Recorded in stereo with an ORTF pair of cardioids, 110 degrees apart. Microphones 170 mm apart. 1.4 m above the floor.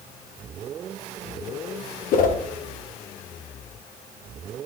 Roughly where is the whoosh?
Ahead left.